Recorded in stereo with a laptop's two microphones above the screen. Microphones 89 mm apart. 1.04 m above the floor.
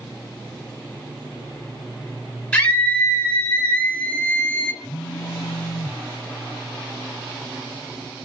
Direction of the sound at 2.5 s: 15° left (ahead or behind).